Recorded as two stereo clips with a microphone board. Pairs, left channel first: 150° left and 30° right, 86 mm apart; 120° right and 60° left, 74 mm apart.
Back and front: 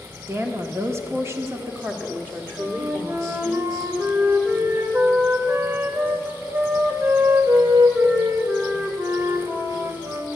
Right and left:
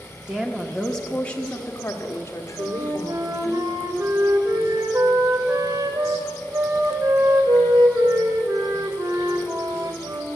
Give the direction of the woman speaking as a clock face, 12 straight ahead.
12 o'clock.